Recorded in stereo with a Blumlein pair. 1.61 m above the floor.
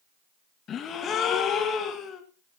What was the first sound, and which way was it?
A gasp, 25° left.